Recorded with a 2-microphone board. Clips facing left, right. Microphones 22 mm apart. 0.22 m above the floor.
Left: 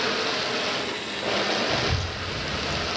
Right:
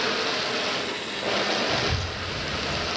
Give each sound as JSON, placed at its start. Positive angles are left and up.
{"t": 1.7, "sound": "a child speaking", "side_deg": -10, "distance_m": 0.6}